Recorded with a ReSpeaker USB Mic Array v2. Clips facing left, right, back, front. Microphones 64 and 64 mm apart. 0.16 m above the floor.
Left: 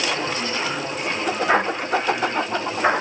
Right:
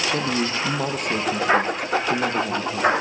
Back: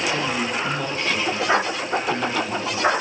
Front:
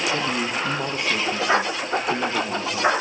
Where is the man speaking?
70° right, 4.5 m.